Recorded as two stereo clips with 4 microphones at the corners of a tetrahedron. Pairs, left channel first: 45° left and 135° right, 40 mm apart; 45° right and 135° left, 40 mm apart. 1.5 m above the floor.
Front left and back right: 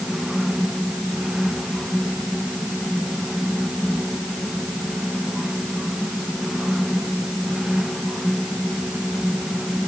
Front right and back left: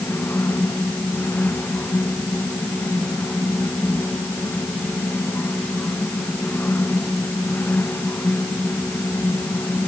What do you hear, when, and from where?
Only background noise.